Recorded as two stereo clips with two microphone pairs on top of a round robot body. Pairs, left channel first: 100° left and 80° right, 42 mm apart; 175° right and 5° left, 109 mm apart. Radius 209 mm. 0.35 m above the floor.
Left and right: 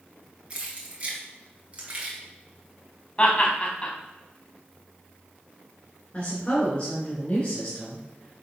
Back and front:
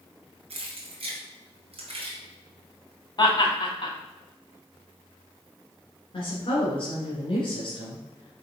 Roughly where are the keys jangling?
Ahead.